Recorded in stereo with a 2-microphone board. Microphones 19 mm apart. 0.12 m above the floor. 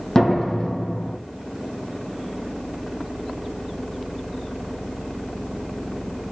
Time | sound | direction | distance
0.1 | a door slam | 40° left (ahead or behind) | 4 m